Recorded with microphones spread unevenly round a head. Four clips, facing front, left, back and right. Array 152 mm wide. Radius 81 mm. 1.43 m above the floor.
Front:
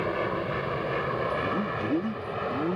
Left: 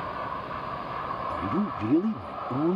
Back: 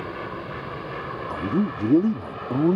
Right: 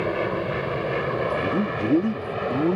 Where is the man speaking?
165° right.